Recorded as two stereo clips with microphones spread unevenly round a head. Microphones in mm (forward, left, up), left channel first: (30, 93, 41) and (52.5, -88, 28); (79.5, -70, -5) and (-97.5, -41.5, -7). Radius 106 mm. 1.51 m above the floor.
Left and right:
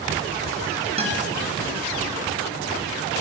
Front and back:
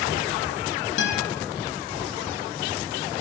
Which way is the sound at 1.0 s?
25° right.